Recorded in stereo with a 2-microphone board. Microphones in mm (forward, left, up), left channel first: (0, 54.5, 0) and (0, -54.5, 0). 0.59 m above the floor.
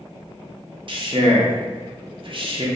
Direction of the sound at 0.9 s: 50° right (ahead or behind).